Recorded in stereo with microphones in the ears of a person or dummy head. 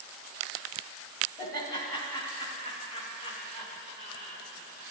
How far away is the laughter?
About 3.5 m.